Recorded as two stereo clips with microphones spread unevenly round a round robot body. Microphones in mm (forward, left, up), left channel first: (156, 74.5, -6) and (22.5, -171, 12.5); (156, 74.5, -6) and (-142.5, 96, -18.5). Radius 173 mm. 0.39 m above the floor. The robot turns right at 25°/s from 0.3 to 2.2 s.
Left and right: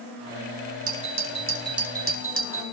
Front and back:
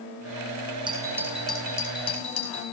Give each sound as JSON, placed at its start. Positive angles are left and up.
{"t": 0.9, "sound": "a doorbell", "azimuth_deg": -110, "distance_m": 3.5}